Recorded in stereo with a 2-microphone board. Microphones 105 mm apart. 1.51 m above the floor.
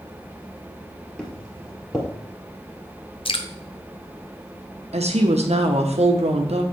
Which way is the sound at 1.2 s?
5° left (ahead or behind).